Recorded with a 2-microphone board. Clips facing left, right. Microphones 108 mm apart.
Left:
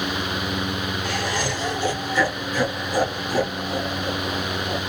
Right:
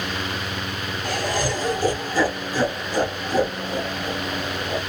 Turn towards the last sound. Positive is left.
turn(degrees=-5)  # may be behind; listen again after turning